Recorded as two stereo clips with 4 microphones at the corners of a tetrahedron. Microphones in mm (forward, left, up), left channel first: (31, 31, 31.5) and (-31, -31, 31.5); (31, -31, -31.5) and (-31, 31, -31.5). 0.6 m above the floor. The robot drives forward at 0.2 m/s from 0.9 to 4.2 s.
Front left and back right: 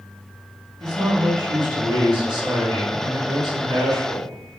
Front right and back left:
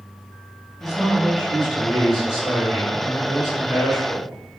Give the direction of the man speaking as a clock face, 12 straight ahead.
5 o'clock.